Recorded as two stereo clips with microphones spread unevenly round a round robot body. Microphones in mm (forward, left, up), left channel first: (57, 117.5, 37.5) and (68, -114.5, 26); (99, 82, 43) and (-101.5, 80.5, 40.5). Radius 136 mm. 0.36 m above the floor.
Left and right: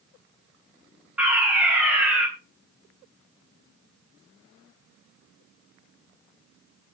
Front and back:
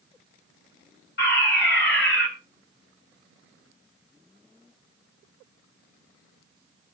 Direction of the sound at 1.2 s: 5° right.